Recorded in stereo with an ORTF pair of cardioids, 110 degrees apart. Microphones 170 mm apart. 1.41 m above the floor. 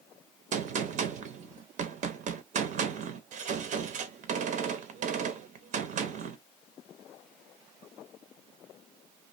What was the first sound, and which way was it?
A gunshot, 50° right.